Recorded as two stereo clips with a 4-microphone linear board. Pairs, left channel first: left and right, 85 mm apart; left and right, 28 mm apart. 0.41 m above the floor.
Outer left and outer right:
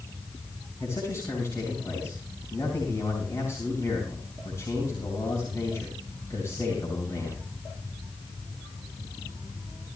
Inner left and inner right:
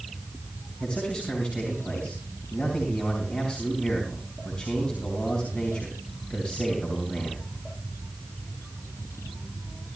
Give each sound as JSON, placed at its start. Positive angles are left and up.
{"t": 0.8, "sound": "a man speaking", "side_deg": 30, "distance_m": 4.5}